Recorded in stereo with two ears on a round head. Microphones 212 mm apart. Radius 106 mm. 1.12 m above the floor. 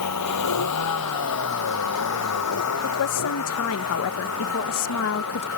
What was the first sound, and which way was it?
A vehicle, 85° left.